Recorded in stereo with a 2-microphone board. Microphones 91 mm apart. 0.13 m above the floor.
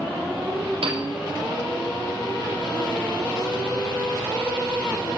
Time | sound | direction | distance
0.8 | a piano | 75° right (ahead or behind) | 3.5 m